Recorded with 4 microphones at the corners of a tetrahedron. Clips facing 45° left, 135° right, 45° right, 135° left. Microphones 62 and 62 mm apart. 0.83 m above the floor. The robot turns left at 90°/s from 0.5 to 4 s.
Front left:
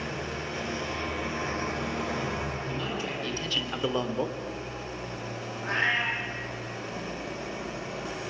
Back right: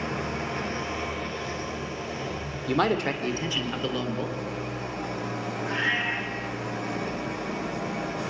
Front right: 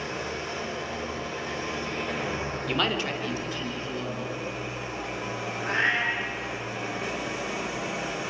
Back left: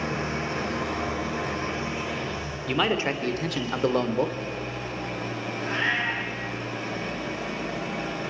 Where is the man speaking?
130° right, 3 m; by 4.4 s 110° left, 3 m.